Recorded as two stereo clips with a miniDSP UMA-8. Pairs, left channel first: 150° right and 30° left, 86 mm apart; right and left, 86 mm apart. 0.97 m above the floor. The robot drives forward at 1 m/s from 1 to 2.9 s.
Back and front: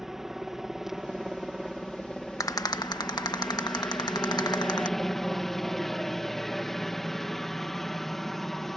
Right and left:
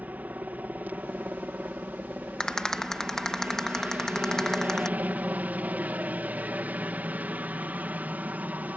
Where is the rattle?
165° right; by 4.9 s 170° right.